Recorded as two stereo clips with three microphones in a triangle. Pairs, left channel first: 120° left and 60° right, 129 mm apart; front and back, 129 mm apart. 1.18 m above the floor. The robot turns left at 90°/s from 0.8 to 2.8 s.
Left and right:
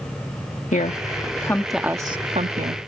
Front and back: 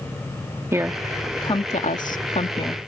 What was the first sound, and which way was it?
A woman speaking, 110° left.